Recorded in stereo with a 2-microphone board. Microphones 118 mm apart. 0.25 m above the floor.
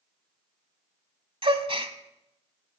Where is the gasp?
50° right (ahead or behind), 0.8 m.